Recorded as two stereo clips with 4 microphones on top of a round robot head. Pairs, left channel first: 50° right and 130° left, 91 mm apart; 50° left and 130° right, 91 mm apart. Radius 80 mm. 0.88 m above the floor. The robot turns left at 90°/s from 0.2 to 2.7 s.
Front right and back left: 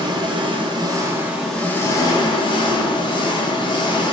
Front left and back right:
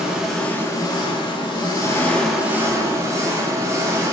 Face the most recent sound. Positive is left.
turn(degrees=-70)